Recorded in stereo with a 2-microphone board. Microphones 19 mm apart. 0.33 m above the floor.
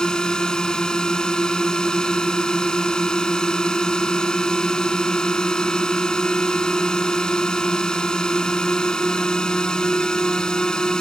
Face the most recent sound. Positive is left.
turn(degrees=40)  # may be behind; listen again after turning